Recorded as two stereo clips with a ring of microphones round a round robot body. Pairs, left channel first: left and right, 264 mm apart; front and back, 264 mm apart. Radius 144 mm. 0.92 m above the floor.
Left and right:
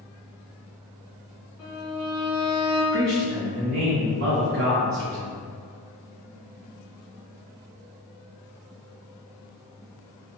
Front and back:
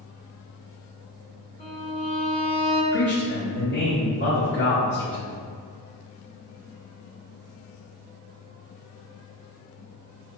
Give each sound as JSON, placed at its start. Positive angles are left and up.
{"t": 1.6, "sound": "a violin", "azimuth_deg": 70, "distance_m": 1.2}
{"t": 2.9, "sound": "a man speaking", "azimuth_deg": -45, "distance_m": 0.8}